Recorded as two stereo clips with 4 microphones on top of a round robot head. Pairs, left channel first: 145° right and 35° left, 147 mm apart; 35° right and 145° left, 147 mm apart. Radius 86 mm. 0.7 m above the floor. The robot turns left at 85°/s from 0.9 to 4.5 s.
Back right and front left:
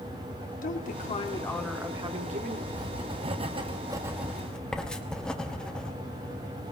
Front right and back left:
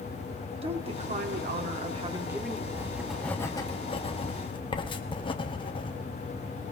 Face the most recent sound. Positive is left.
turn(degrees=-65)